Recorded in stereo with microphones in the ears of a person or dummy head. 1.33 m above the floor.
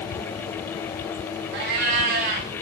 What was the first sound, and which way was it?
A cat meowing, 40° right (ahead or behind).